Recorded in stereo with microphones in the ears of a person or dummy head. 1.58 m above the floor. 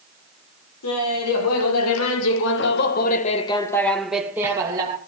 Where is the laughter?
85° left, 4 m; by 5.0 s 25° right (ahead or behind), 3 m.